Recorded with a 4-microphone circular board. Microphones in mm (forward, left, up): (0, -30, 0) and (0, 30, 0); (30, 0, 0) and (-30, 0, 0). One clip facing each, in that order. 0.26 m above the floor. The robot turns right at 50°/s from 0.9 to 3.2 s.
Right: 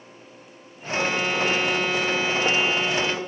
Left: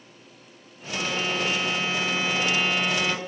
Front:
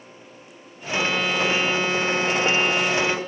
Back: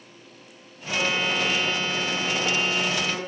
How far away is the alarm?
About 2.5 m.